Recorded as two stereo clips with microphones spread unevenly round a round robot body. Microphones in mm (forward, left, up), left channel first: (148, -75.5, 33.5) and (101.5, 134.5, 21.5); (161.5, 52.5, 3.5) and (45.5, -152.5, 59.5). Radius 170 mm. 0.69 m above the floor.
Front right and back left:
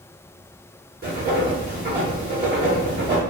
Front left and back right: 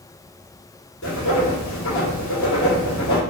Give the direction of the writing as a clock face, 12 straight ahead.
10 o'clock.